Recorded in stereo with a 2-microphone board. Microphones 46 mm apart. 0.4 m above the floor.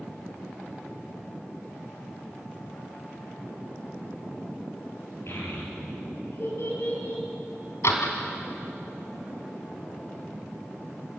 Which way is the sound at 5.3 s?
60° left (ahead or behind).